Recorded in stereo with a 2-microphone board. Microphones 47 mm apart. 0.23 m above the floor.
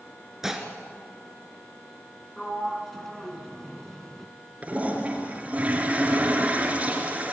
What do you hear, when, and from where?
0.4 s dishes clattering: 10° right (ahead or behind), 2.5 m
2.4 s a sliding door: 5° left (ahead or behind), 2 m
4.6 s a toilet flushing: 30° right (ahead or behind), 4 m